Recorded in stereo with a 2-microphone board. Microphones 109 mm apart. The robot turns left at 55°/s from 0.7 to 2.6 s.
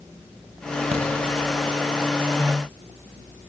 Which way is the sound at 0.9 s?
80° right.